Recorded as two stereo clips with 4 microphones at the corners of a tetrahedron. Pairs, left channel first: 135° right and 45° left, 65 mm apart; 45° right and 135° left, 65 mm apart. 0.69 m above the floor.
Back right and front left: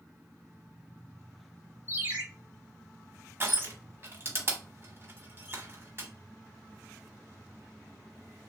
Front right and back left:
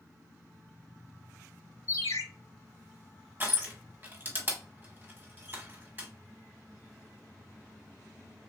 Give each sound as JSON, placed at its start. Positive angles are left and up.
{"t": 1.9, "sound": "a ringtone", "azimuth_deg": -10, "distance_m": 2.0}
{"t": 3.4, "sound": "crushing", "azimuth_deg": 85, "distance_m": 1.1}